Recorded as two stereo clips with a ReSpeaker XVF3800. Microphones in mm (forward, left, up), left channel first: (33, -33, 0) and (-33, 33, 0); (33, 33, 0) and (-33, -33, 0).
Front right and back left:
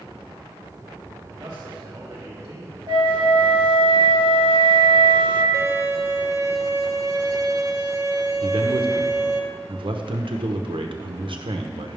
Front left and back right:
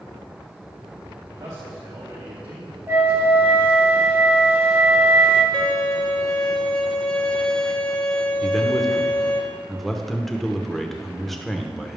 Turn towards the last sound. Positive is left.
turn(degrees=130)